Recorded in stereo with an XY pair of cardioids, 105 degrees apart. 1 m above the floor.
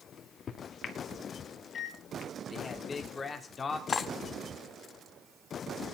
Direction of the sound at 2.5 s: 35° left.